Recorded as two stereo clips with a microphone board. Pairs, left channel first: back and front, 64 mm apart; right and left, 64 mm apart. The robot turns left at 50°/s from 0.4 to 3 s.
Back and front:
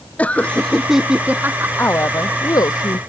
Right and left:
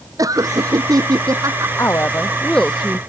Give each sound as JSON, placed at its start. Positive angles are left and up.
{"t": 0.2, "sound": "laughter", "azimuth_deg": 110}
{"t": 1.8, "sound": "a woman speaking", "azimuth_deg": -130}